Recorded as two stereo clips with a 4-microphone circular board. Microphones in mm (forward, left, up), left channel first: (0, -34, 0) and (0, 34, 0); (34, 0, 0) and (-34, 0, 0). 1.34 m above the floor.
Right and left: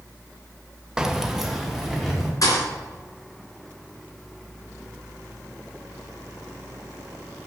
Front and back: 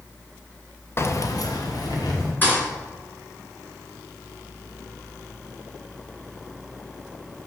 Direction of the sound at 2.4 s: 60° right.